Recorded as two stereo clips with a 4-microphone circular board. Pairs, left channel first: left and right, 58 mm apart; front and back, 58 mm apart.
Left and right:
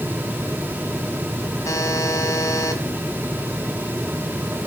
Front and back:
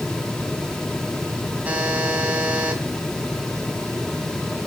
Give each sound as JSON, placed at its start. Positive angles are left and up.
{"t": 1.6, "sound": "a buzzer", "azimuth_deg": 120, "distance_m": 1.9}